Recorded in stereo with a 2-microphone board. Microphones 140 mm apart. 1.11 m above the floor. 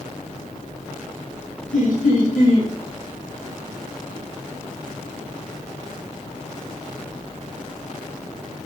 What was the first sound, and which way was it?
Laughter, 65° left (ahead or behind).